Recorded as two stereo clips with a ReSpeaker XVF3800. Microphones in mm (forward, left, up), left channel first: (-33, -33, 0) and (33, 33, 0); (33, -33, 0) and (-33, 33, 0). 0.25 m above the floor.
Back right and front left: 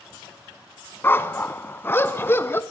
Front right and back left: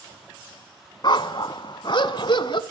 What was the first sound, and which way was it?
A dog barking, 70° right.